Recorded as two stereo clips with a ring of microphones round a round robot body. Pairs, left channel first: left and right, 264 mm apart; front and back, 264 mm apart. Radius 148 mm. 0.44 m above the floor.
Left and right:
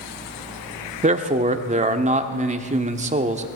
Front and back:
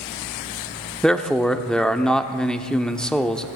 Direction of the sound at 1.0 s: 85° right.